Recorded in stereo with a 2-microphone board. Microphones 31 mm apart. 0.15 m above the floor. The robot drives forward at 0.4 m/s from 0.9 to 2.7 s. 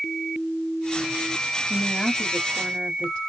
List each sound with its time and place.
1.7 s a woman speaking: 30° left (ahead or behind), 2 m